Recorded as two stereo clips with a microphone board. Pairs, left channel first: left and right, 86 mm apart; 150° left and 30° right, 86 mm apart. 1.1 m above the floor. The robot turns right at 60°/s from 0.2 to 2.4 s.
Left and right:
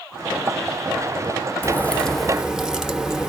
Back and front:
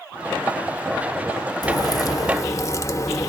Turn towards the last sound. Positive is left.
turn(degrees=-170)